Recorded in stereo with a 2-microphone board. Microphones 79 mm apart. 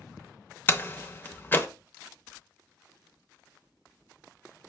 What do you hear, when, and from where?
0.7 s a door slam: 25° left (ahead or behind), 0.6 m